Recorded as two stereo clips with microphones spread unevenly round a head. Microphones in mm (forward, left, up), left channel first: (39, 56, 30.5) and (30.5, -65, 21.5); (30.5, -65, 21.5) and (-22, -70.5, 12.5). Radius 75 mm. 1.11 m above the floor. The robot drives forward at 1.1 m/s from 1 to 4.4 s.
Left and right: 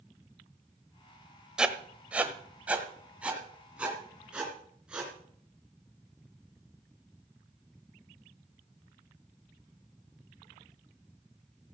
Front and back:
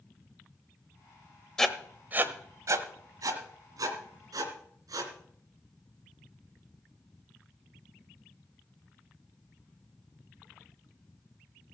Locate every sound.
1.6 s writing: 5° right, 0.9 m; by 5.1 s straight behind, 3 m